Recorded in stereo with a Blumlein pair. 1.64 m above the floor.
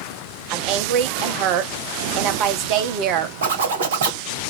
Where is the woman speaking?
40° right, 0.9 m.